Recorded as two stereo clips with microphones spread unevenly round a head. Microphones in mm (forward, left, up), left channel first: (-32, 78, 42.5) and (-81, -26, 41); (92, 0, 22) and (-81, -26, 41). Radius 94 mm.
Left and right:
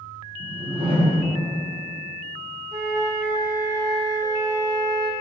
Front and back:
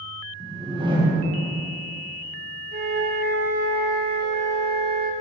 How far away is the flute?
About 0.6 m.